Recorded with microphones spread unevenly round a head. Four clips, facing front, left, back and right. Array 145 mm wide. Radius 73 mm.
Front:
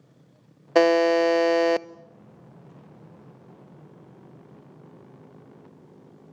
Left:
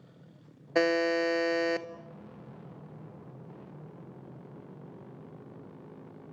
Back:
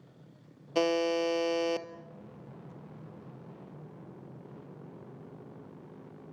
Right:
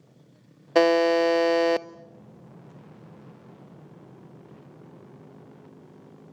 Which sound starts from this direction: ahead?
A buzzer, at 0.8 s.